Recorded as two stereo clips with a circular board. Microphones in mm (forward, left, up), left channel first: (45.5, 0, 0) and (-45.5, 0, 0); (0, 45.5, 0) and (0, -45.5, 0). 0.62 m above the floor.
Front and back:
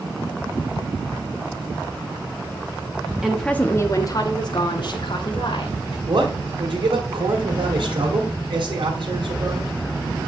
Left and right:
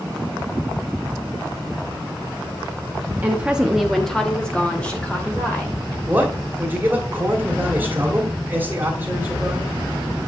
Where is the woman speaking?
110° right, 0.8 m; by 6.0 s 15° left, 3 m.